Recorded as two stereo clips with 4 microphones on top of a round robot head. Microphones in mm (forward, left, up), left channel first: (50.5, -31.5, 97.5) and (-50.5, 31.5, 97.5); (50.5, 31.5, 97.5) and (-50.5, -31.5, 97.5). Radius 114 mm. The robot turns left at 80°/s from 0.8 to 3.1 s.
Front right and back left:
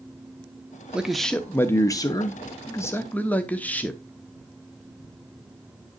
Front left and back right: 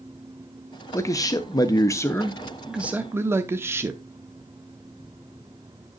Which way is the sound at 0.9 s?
75° left.